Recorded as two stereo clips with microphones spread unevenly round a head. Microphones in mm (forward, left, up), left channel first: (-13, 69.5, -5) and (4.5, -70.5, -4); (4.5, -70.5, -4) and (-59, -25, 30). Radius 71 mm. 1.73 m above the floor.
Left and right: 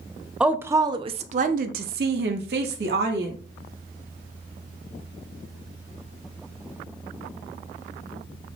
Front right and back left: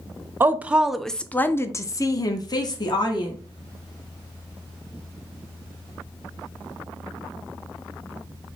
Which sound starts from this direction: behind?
A woman speaking, at 0.4 s.